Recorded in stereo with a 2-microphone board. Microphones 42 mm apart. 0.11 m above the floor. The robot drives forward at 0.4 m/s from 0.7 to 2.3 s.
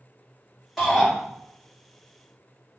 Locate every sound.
0.8 s a shout: 5° left (ahead or behind), 1.9 m